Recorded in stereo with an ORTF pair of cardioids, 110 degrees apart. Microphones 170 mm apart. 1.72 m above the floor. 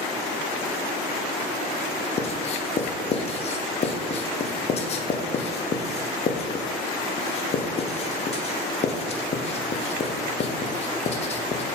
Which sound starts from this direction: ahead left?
Writing, at 2.2 s.